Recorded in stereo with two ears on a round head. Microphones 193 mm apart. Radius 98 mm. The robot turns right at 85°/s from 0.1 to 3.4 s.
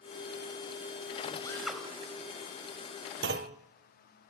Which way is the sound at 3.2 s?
55° right (ahead or behind).